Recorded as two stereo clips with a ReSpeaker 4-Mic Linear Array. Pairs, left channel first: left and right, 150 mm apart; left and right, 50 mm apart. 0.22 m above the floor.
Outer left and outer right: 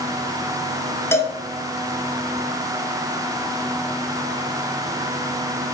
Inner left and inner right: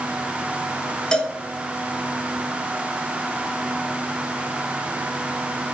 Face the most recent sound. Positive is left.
turn(degrees=15)  # may be behind; listen again after turning